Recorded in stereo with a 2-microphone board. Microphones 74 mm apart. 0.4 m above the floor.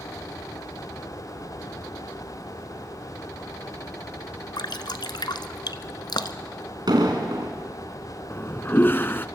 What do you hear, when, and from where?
4.6 s dripping: 85° left, 1.0 m
6.9 s an explosion: 70° right (ahead or behind), 3.5 m
8.3 s a toilet flushing: 30° left (ahead or behind), 0.6 m